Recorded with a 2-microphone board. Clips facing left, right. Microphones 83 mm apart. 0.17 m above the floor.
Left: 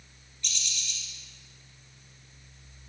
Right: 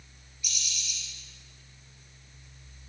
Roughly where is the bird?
Centre.